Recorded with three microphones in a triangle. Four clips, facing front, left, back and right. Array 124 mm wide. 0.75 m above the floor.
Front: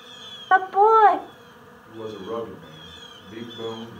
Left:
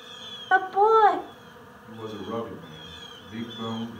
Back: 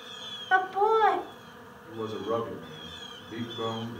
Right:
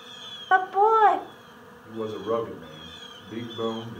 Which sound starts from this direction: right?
A man speaking, at 1.8 s.